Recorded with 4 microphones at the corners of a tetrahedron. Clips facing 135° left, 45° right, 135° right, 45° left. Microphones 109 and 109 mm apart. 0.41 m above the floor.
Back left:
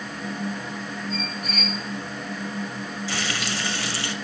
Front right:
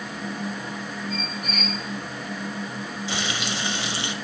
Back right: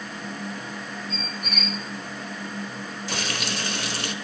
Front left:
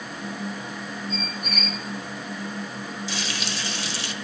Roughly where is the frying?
Behind right.